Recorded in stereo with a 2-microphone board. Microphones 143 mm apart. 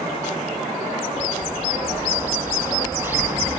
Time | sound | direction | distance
1.2 | a bird | 15° right (ahead or behind) | ?